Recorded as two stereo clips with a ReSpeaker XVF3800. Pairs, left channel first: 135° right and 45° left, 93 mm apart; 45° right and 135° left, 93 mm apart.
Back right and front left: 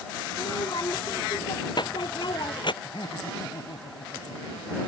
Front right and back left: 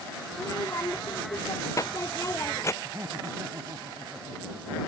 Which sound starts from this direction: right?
A child speaking, at 0.3 s.